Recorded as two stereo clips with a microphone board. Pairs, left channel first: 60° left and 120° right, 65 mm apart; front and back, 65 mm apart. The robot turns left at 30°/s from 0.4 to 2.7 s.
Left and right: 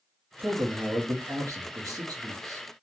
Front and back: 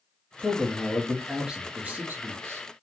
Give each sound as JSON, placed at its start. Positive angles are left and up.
{"t": 0.4, "sound": "a man speaking", "azimuth_deg": -70, "distance_m": 0.7}